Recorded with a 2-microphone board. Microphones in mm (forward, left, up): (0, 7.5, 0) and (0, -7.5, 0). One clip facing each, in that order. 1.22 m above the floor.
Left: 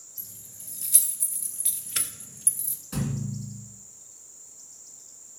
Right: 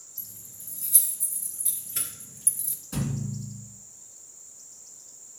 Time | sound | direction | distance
0.2 | keys jangling | 50° left (ahead or behind) | 2 m
2.9 | a thud | 20° left (ahead or behind) | 2 m